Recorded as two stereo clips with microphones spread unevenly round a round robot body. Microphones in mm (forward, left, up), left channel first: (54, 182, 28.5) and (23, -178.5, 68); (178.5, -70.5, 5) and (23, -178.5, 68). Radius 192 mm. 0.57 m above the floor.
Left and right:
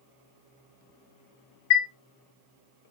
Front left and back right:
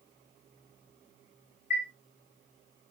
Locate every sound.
1.7 s a chime: 105° left, 2 m